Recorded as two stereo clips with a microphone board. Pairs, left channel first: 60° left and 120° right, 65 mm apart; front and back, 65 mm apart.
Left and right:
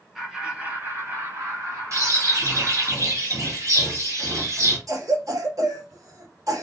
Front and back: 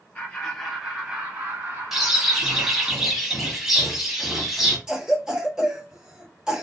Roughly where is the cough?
Right.